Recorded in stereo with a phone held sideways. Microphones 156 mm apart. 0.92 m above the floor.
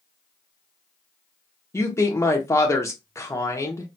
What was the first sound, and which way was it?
A woman speaking, 20° left (ahead or behind).